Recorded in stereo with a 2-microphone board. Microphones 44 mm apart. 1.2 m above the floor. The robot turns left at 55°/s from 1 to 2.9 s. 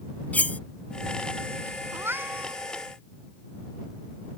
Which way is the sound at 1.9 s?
115° right.